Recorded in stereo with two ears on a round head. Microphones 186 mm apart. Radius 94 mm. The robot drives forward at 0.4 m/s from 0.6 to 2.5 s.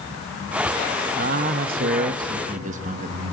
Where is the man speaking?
45° right (ahead or behind), 0.8 m; by 3.3 s 35° right (ahead or behind), 0.9 m.